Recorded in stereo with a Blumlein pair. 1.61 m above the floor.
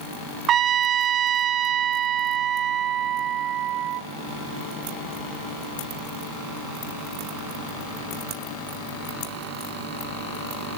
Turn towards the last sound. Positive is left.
turn(degrees=-30)